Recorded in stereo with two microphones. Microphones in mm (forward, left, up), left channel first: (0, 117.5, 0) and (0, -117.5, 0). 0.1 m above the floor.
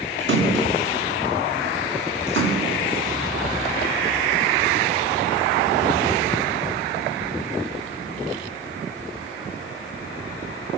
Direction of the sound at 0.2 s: 60° right (ahead or behind).